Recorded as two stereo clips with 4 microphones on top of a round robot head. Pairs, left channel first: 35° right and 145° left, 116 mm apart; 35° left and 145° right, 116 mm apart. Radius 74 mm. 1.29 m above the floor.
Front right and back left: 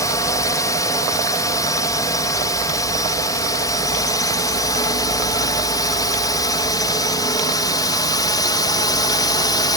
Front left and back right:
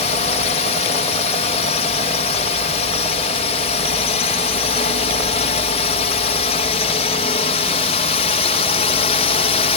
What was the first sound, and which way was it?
A drone, 20° left.